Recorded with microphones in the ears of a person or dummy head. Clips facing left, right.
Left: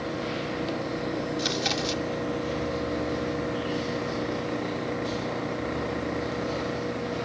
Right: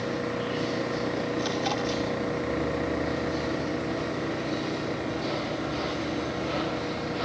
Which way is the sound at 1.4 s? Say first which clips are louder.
Right 1 dB; 30° left (ahead or behind).